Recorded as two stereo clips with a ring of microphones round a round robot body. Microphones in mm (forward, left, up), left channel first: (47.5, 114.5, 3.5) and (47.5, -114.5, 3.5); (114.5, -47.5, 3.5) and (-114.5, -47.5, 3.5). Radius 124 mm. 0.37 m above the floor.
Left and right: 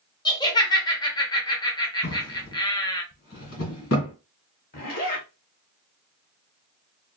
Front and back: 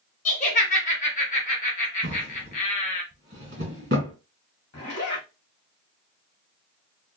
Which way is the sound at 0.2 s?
30° left.